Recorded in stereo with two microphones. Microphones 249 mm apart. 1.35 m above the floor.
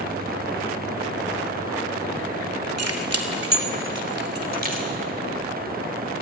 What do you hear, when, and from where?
2.8 s keys jangling: 80° right, 2.5 m; by 4.9 s 35° right (ahead or behind), 3.5 m